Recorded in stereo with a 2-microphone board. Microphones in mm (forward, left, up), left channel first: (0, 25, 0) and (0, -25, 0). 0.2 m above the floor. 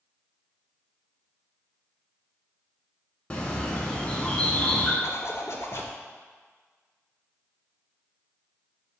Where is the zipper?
60° left (ahead or behind), 0.5 m.